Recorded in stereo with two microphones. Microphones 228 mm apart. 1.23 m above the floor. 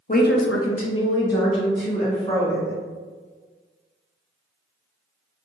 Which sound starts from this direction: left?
A woman speaking, at 0.1 s.